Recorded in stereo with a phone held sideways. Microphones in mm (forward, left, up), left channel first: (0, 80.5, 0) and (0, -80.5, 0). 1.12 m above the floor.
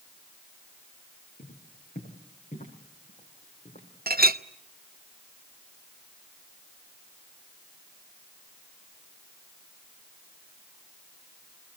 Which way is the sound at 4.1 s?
70° right (ahead or behind).